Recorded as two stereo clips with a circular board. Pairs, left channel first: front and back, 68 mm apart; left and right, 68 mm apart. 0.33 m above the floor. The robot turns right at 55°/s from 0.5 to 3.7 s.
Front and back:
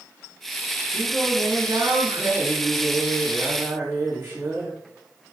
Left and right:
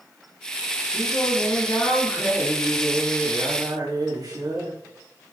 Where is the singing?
85° left, 8 m; by 4.8 s 125° right, 8 m.